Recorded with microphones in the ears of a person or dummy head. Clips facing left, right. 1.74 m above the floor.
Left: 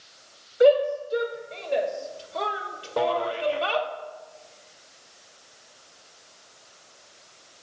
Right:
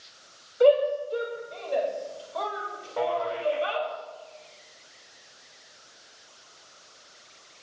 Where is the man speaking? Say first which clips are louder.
Left 3 dB; 55° left (ahead or behind), 1.1 m.